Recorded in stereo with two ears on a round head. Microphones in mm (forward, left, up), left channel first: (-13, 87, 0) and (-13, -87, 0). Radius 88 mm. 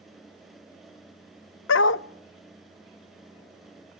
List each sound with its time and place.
1.7 s a dog barking: 65° left (ahead or behind), 0.5 m